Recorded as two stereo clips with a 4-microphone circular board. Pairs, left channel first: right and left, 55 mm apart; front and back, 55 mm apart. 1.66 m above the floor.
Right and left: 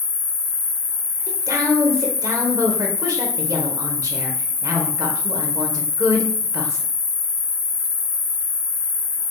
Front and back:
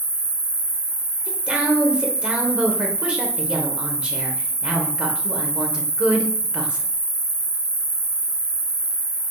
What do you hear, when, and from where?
0.0 s an insect: 165° left, 1.2 m
1.3 s a woman speaking: 110° left, 0.9 m